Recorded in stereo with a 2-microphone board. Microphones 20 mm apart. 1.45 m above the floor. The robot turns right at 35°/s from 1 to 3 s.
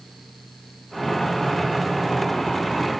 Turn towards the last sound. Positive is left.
No sound to turn to.